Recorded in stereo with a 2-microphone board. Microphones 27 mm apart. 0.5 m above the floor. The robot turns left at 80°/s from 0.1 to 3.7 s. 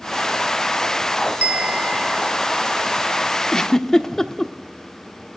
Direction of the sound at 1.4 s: 65° right.